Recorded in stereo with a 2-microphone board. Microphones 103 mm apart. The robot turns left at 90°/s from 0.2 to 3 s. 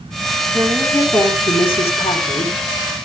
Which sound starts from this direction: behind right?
A woman speaking, at 0.5 s.